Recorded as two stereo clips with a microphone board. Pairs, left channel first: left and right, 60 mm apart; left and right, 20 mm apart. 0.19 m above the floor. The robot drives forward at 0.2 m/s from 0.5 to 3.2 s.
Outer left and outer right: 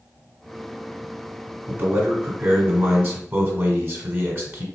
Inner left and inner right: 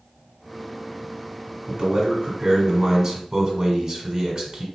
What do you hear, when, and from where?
1.7 s a man speaking: 40° right (ahead or behind), 1.5 m